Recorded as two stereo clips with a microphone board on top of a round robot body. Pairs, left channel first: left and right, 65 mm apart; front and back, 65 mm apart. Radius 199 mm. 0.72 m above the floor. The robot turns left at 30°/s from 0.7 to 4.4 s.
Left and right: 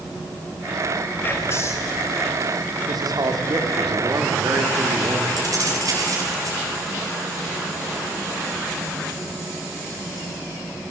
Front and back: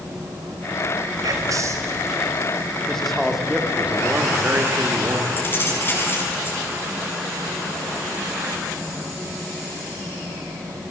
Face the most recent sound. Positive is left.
turn(degrees=-60)